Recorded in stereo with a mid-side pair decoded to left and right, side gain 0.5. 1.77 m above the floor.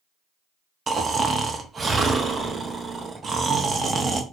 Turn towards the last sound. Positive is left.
turn(degrees=-35)